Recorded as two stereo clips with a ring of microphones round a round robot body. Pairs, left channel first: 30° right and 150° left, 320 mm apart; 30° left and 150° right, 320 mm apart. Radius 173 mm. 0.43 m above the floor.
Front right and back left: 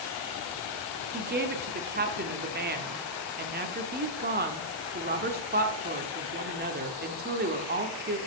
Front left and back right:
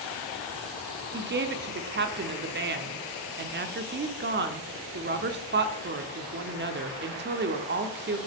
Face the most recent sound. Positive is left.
turn(degrees=-175)